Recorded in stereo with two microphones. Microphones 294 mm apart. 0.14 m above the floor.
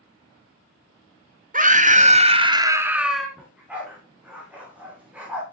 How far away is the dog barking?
About 5.5 m.